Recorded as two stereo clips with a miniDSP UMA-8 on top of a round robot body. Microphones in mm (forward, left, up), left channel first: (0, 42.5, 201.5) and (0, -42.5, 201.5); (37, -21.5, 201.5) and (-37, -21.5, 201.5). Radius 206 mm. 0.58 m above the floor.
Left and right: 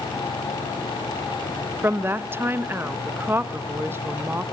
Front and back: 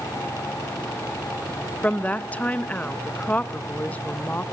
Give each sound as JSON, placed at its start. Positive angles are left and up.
{"t": 1.8, "sound": "a woman speaking", "azimuth_deg": -55, "distance_m": 0.9}